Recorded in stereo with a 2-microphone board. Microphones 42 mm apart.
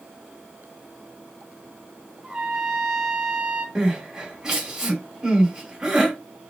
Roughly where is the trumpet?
Right.